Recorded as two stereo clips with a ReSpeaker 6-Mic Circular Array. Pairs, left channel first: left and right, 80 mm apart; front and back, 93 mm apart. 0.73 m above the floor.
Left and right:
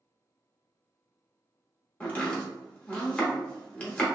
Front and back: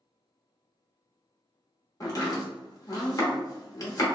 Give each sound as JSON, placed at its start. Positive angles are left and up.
{"t": 2.0, "sound": "chopping", "azimuth_deg": 20, "distance_m": 1.1}